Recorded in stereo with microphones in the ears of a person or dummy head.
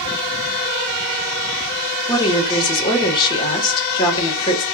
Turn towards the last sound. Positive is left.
turn(degrees=25)  # may be behind; listen again after turning